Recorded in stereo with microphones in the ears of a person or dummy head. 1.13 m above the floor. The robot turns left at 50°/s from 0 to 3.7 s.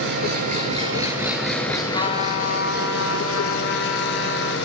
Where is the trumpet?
150° left, 2.5 m; by 4.6 s 60° left, 2.5 m.